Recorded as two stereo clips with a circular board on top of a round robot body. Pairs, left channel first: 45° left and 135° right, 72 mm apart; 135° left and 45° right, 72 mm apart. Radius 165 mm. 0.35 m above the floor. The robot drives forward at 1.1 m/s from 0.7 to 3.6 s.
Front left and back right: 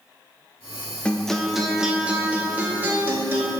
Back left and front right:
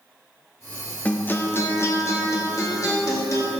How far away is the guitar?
About 1.5 m.